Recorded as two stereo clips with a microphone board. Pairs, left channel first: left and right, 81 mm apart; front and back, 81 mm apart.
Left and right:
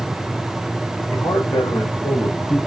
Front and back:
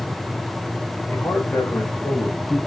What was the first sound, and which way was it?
A man speaking, 60° left.